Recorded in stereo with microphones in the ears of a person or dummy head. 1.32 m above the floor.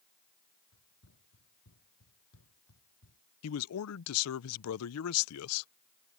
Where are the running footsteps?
70° left (ahead or behind); by 3.2 s 75° left (ahead or behind).